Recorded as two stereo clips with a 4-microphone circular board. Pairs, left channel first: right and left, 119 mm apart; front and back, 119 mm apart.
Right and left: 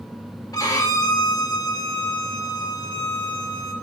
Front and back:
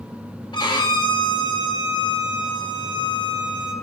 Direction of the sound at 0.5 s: 40° right.